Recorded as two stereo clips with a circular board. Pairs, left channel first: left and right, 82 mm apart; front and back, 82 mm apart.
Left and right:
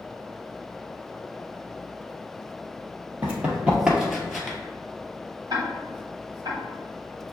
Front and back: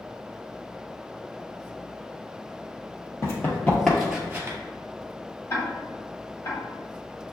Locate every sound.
3.2 s running footsteps: 30° right, 1.6 m; by 4.6 s 170° left, 1.4 m
5.5 s ticking: 50° right, 1.3 m